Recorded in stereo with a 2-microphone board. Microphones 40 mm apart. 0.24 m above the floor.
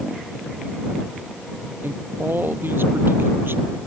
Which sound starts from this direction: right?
A man speaking, at 1.8 s.